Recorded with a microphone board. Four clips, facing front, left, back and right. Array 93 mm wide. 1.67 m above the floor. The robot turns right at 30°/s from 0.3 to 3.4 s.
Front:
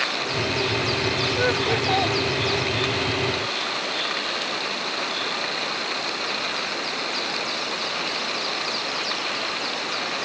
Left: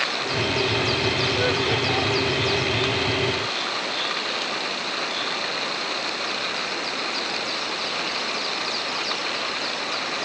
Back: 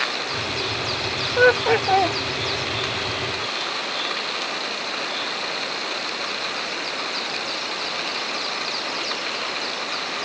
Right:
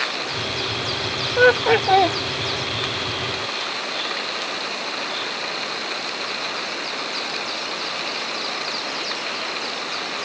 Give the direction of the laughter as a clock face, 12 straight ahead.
4 o'clock.